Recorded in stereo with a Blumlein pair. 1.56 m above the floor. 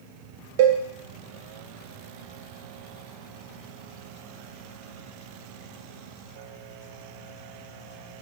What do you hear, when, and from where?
0.6 s a cowbell: 50° right, 1.1 m